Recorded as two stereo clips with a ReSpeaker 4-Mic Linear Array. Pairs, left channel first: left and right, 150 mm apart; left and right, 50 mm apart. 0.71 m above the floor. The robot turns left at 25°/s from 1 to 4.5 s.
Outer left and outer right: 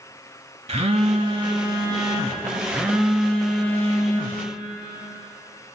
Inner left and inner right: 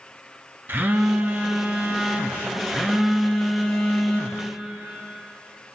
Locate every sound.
0.7 s a phone buzzing: 125° right, 0.9 m; by 4.5 s 145° left, 0.9 m